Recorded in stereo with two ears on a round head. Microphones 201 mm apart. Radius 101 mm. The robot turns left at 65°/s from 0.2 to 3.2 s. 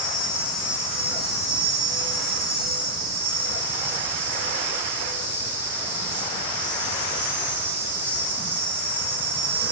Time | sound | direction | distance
0.0 | an insect | 25° left | 6.5 m